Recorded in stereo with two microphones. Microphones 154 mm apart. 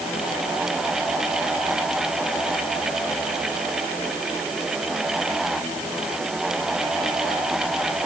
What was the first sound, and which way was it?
Only background noise.